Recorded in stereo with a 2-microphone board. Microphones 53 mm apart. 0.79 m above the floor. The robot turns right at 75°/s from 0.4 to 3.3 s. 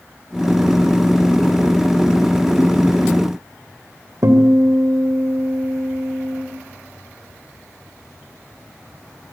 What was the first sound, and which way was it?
A guitar, 75° right (ahead or behind).